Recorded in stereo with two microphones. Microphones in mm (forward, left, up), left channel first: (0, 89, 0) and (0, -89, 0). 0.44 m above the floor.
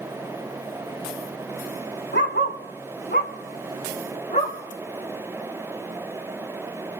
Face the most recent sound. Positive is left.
turn(degrees=40)  # may be behind; listen again after turning